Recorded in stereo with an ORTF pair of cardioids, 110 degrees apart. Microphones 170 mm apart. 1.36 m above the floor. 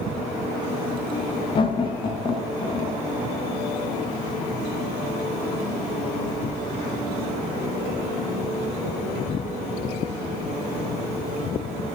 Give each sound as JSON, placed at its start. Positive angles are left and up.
{"t": 1.6, "sound": "laughter", "azimuth_deg": 30, "distance_m": 0.5}